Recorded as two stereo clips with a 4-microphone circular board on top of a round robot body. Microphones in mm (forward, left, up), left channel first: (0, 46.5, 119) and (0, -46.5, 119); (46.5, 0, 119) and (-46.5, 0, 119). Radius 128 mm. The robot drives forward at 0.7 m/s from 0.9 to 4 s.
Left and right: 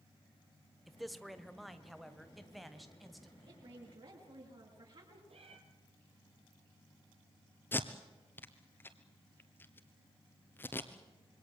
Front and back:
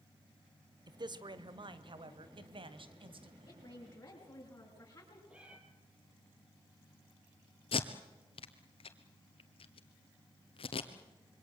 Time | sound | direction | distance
0.9 | a man speaking | straight behind | 1.5 m
3.5 | a woman speaking | 55° right | 6.5 m
5.3 | a cat meowing | 100° right | 2.5 m
7.7 | tape being pulled | 20° left | 1.3 m